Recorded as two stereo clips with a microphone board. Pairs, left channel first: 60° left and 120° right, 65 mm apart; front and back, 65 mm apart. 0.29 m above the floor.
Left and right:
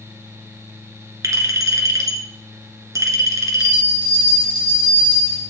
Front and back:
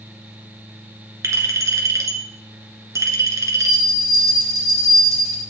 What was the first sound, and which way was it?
A clink, 145° right.